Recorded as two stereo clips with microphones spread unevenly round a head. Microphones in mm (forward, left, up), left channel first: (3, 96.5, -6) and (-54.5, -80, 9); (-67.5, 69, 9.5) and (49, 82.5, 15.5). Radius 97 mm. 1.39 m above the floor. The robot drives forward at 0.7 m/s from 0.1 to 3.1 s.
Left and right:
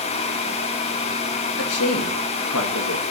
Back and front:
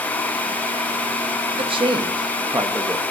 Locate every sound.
1.6 s a man speaking: 50° left, 2.0 m; by 3.0 s 80° left, 1.5 m